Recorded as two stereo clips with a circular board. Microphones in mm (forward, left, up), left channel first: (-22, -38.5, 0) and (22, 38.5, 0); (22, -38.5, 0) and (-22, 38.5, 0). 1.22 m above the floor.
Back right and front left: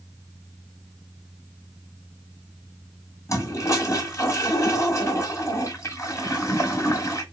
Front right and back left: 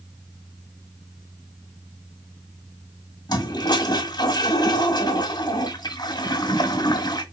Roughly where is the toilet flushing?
Right.